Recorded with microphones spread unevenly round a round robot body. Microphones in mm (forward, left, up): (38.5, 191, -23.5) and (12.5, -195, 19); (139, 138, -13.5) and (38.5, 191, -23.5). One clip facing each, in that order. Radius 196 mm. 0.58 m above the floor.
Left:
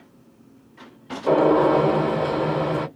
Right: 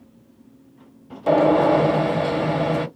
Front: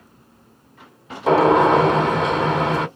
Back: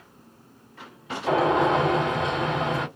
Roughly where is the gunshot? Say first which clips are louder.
Even, front 7 dB; ahead right.